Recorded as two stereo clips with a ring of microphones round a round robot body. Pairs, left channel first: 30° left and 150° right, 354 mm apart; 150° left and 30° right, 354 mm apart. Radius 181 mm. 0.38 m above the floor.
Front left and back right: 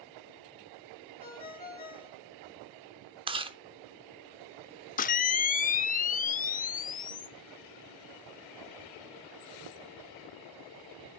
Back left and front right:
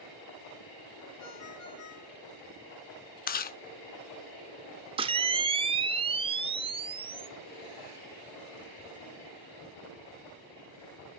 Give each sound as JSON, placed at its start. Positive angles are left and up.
{"t": 1.2, "sound": "a ringtone", "azimuth_deg": 105, "distance_m": 5.5}
{"t": 3.3, "sound": "chewing", "azimuth_deg": 155, "distance_m": 0.6}
{"t": 5.0, "sound": "a camera shutter", "azimuth_deg": 20, "distance_m": 0.6}